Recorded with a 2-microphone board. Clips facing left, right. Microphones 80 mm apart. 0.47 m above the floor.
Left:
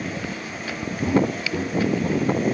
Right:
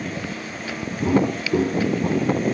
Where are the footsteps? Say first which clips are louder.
Right 2 dB; 35° right (ahead or behind), 1.4 m; by 2.4 s 75° right (ahead or behind), 2.0 m.